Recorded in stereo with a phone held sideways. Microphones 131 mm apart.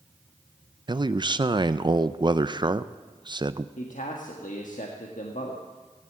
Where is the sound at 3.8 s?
80° left, 1.4 m.